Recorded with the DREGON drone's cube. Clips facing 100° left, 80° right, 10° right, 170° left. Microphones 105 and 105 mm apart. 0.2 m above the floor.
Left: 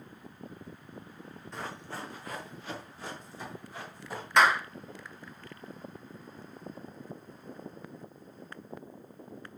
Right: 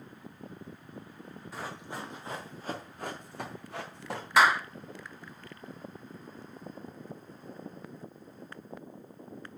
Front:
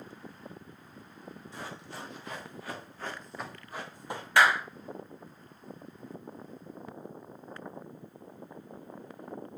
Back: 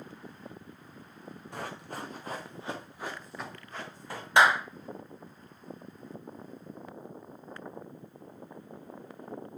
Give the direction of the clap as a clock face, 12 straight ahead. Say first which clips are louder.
Even, back 1 dB; 5 o'clock.